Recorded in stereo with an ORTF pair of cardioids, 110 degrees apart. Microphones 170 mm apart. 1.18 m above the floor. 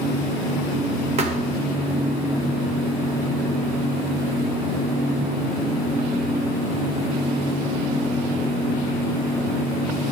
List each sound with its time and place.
1.2 s a thud: 40° right, 1.9 m